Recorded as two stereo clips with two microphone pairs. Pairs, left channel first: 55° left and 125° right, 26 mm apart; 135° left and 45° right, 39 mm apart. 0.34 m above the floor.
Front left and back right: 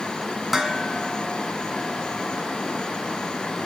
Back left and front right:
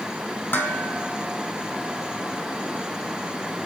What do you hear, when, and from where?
0.5 s dishes clattering: 150° left, 2 m